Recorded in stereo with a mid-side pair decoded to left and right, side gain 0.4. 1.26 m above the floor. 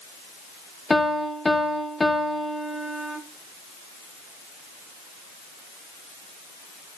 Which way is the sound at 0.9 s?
25° left.